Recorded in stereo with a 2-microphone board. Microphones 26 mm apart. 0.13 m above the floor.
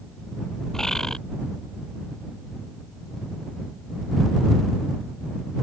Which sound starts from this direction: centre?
A bird, at 0.7 s.